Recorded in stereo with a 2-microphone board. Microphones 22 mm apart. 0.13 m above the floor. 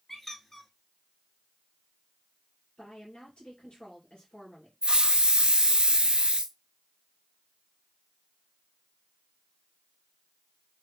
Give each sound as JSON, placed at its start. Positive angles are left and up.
{"t": 0.1, "sound": "a squeak", "side_deg": 15, "distance_m": 0.9}
{"t": 2.8, "sound": "a woman speaking", "side_deg": 50, "distance_m": 2.0}
{"t": 4.8, "sound": "a hiss", "side_deg": -50, "distance_m": 0.6}